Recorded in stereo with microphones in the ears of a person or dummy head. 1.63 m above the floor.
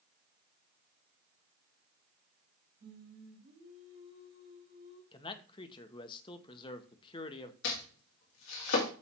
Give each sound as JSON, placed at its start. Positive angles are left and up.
{"t": 2.8, "sound": "singing", "side_deg": -65, "distance_m": 3.0}
{"t": 5.1, "sound": "a man speaking", "side_deg": 25, "distance_m": 1.0}
{"t": 7.6, "sound": "chopping", "side_deg": 70, "distance_m": 2.5}